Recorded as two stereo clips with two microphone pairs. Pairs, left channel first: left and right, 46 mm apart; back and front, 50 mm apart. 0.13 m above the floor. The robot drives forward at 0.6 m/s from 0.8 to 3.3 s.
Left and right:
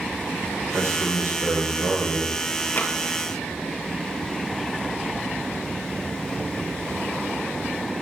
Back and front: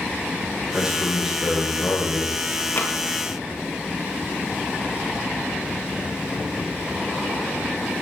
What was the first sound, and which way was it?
A man speaking, 75° right.